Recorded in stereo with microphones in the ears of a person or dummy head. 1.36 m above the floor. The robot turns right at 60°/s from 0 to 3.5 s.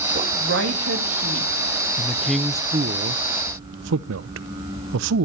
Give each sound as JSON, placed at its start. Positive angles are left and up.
{"t": 0.1, "sound": "a woman speaking", "azimuth_deg": -135, "distance_m": 2.0}
{"t": 2.0, "sound": "a man speaking", "side_deg": 15, "distance_m": 0.6}